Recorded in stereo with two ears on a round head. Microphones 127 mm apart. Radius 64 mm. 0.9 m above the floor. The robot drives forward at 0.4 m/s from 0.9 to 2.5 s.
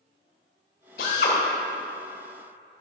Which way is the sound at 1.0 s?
75° left (ahead or behind).